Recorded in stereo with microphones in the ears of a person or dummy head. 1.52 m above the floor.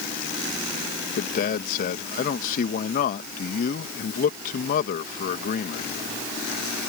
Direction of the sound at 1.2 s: 45° left (ahead or behind).